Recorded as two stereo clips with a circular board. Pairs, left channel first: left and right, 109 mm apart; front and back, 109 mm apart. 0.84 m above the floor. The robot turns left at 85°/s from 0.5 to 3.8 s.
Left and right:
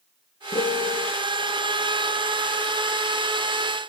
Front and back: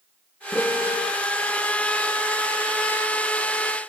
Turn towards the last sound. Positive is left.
turn(degrees=170)